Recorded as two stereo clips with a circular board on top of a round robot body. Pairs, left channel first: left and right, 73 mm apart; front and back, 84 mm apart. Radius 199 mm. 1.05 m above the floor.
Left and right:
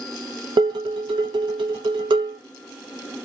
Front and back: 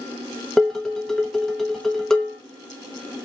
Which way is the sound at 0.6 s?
85° right.